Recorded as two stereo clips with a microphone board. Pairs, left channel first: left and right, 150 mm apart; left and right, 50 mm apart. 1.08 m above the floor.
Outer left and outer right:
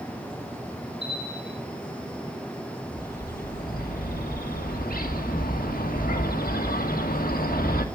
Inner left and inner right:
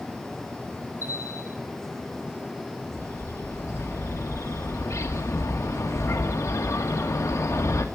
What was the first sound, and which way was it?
A bell, 35° right (ahead or behind).